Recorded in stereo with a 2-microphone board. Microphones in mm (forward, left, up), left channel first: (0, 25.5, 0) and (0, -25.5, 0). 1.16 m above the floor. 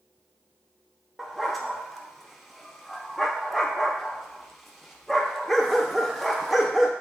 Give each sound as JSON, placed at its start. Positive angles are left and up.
{"t": 1.2, "sound": "a dog barking", "side_deg": 0, "distance_m": 0.6}